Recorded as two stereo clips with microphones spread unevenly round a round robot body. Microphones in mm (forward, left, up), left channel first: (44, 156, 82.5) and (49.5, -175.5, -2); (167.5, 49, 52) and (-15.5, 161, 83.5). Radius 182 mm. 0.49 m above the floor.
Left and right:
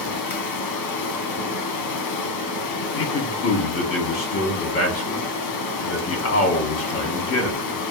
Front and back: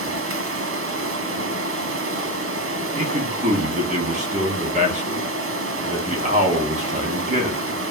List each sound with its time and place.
0.0 s running water: 130° left, 1.0 m
3.0 s a man speaking: 120° left, 1.4 m